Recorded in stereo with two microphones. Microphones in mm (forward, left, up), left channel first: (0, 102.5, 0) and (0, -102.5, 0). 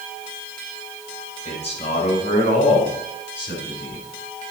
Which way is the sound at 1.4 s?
30° left (ahead or behind).